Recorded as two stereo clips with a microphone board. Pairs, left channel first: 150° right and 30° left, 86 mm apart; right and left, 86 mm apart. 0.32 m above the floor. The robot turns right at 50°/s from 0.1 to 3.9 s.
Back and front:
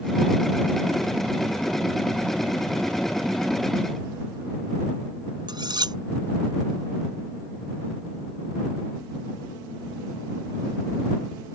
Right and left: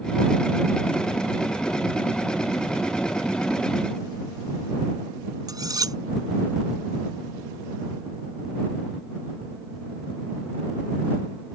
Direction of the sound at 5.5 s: 55° left.